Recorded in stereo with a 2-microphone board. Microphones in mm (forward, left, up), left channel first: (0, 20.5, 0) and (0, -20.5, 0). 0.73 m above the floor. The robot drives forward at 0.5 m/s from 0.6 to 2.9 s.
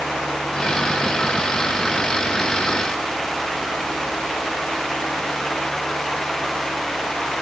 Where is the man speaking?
I don't hear a man speaking.